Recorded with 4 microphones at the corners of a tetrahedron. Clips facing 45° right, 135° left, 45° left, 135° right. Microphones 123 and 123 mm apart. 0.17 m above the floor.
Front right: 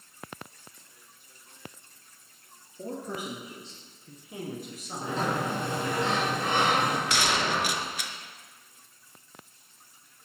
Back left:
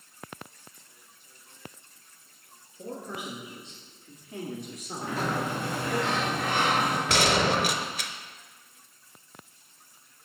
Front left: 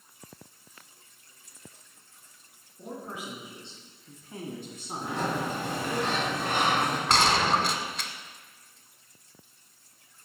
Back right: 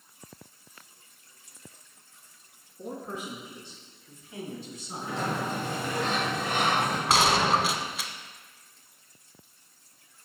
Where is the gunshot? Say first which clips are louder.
Back left 4 dB, back right 1 dB; 140° left, 0.5 m.